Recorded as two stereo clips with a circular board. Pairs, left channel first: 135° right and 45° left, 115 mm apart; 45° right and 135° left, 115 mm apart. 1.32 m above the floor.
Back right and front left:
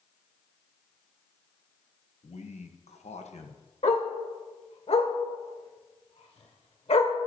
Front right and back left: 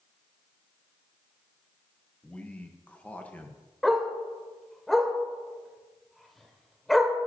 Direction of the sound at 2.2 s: 120° right.